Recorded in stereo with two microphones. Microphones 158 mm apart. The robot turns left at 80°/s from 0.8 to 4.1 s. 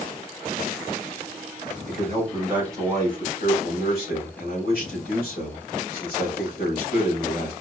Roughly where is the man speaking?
Behind right.